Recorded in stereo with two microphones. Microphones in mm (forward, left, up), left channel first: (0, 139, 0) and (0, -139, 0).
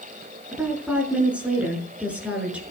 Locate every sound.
0.5 s a woman speaking: 5° right (ahead or behind), 6.5 m